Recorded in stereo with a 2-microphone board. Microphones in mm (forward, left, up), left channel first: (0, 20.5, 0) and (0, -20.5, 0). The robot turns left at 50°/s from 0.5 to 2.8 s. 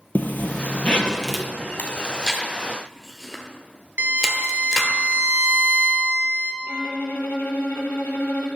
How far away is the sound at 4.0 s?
About 0.6 m.